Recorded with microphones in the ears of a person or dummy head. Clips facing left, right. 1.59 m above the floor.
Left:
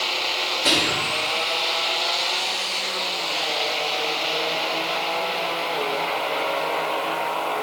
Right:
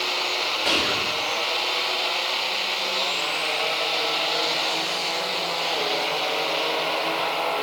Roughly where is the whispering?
Left.